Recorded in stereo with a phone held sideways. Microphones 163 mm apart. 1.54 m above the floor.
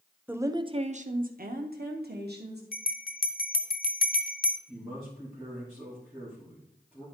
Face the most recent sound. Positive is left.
turn(degrees=-5)  # may be behind; listen again after turning